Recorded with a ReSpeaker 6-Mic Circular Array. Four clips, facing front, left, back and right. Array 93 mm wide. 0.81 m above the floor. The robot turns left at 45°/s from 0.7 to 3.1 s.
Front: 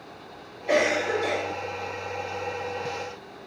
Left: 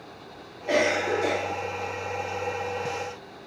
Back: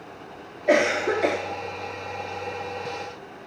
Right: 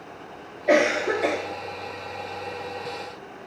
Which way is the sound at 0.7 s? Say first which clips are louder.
Right 4 dB, back 2 dB; 140° right.